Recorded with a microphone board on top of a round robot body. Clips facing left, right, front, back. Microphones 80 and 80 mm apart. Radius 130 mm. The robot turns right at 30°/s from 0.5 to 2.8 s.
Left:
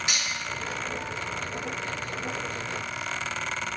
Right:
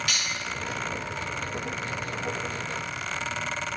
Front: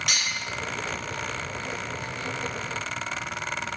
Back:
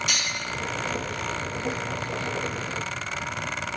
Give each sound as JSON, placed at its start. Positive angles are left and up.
{"t": 0.1, "sound": "cutlery clinking", "azimuth_deg": 25, "distance_m": 3.5}